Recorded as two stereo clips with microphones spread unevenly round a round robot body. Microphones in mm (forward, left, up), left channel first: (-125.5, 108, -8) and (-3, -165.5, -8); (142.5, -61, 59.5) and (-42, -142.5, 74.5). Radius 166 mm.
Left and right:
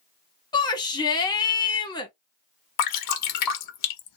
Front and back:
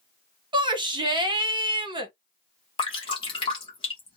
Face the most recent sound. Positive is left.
turn(degrees=90)